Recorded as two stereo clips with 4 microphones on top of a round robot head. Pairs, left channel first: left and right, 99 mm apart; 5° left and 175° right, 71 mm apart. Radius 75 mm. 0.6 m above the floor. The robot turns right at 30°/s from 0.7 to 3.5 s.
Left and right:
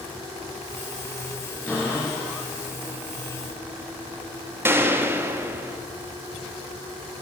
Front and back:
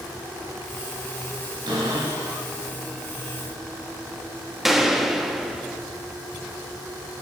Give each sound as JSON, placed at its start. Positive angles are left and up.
{"t": 1.7, "sound": "a cupboard door", "azimuth_deg": 165, "distance_m": 4.5}
{"t": 4.7, "sound": "a gunshot", "azimuth_deg": -90, "distance_m": 1.1}